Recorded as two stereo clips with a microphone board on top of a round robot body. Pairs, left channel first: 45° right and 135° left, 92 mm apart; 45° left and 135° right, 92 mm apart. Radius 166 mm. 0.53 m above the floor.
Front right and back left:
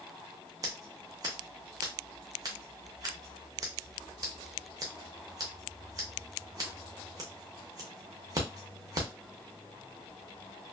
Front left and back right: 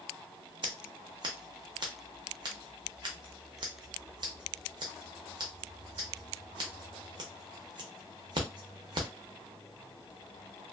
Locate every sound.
0.6 s scissors: 175° right, 0.6 m